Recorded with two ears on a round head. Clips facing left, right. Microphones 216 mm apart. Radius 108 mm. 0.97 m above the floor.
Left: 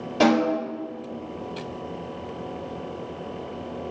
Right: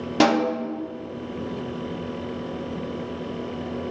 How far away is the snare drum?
About 1.8 m.